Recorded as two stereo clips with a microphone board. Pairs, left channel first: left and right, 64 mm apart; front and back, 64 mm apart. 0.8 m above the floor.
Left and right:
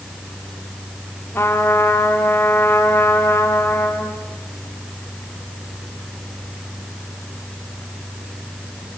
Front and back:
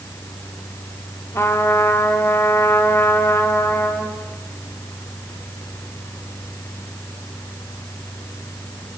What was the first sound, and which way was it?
A trumpet, 45° left.